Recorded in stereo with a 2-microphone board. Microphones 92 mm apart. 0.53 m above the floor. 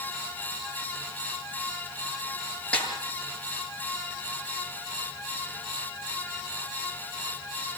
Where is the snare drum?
10° left (ahead or behind), 8.5 m.